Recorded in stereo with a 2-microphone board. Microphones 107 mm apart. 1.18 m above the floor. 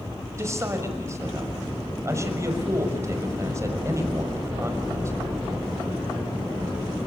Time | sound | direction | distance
0.4 | a man speaking | 30° right (ahead or behind) | 5.5 m